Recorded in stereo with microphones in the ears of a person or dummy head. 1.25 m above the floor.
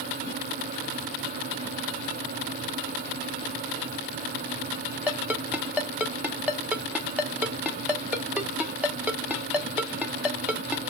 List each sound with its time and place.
5.1 s a ringtone: 5° left (ahead or behind), 0.6 m